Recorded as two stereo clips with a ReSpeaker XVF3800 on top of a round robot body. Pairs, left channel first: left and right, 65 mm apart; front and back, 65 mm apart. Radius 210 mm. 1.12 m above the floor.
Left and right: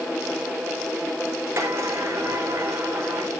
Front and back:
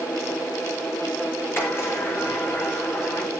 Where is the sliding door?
45° right, 6.5 m.